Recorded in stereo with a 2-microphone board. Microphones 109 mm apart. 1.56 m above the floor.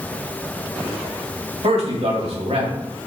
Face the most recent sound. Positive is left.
turn(degrees=-75)  # may be behind; listen again after turning